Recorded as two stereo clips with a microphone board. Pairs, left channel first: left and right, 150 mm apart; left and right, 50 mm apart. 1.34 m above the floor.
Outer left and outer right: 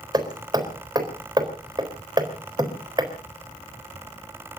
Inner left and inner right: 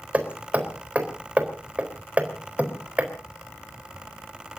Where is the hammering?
30° right (ahead or behind), 4 m.